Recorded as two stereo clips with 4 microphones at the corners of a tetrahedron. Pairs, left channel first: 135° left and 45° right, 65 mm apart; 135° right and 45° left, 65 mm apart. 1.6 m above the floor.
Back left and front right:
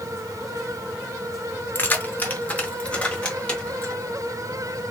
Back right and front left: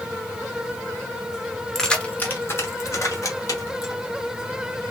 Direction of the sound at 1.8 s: 150° left.